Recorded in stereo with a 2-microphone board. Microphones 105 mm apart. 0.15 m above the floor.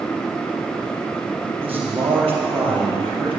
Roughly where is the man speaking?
Right.